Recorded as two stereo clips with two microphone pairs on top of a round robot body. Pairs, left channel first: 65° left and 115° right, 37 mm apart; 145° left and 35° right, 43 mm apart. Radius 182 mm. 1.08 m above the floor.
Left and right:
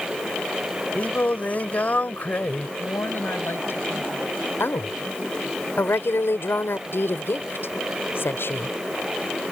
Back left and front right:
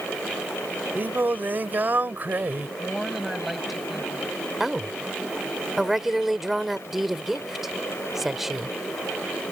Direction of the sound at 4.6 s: 50° left.